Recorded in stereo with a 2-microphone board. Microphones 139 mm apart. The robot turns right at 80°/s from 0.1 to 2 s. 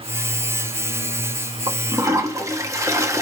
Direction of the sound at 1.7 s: 40° right (ahead or behind).